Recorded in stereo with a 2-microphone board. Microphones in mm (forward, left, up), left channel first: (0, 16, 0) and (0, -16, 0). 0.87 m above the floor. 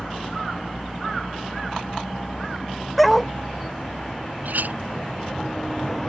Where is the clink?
70° right (ahead or behind).